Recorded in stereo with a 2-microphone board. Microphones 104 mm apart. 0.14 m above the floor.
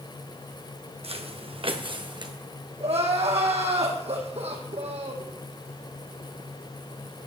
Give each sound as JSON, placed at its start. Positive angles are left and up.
{"t": 1.0, "sound": "footsteps", "side_deg": -70, "distance_m": 2.0}
{"t": 2.8, "sound": "crying", "side_deg": -75, "distance_m": 3.0}